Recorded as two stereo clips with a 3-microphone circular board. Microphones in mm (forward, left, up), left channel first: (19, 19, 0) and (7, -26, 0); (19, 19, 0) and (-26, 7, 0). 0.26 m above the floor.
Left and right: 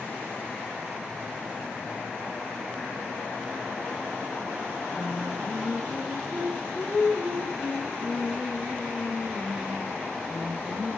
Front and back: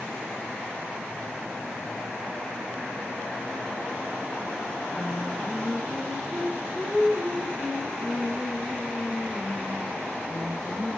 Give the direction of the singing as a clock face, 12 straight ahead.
8 o'clock.